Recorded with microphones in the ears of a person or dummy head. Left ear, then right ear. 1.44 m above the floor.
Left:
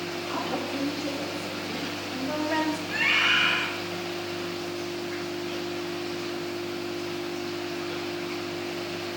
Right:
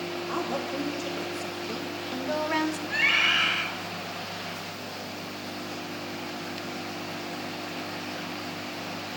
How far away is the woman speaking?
About 3 m.